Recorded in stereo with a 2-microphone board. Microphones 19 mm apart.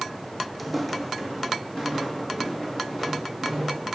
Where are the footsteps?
Centre (ahead or behind), 0.7 m; by 3.8 s 5° right (ahead or behind), 4 m.